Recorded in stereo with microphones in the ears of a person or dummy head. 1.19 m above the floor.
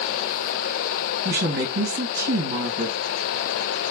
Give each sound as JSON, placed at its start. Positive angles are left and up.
{"t": 1.2, "sound": "a woman speaking", "side_deg": -50, "distance_m": 1.7}